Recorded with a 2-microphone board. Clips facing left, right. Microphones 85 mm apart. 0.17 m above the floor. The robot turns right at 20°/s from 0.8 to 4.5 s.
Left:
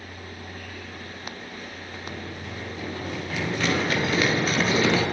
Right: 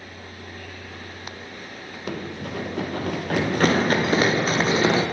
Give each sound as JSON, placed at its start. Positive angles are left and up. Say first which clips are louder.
{"t": 2.1, "sound": "running footsteps", "louder": "right 7 dB", "side_deg": -85, "distance_m": 3.5}